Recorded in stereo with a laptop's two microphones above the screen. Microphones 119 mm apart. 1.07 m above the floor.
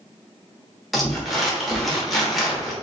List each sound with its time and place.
0.9 s crumpling: centre (ahead or behind), 0.9 m